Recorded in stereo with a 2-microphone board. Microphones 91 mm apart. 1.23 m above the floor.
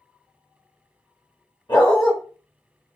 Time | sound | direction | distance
1.7 | a dog barking | 55° left (ahead or behind) | 1.4 m